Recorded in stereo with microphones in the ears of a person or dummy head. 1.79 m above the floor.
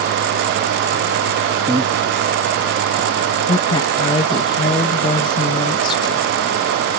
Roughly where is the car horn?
No car horn in this recording.